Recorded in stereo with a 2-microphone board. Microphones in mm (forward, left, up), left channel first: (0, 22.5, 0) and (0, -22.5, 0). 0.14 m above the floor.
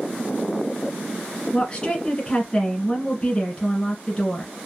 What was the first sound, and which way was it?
A woman speaking, 20° left (ahead or behind).